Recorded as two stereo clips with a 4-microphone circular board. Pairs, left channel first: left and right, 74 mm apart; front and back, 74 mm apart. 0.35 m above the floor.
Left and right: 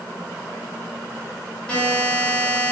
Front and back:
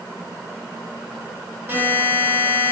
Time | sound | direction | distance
1.7 | a buzzer | 150° left | 1.4 m